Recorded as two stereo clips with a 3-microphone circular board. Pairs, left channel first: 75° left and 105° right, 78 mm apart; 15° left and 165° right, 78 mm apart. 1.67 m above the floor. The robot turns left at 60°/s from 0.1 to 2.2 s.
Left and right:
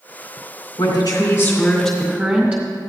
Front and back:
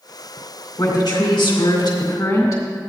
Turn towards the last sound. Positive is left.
turn(degrees=-35)